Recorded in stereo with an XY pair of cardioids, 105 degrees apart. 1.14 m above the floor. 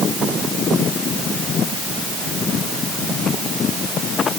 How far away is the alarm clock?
No alarm clock in this recording.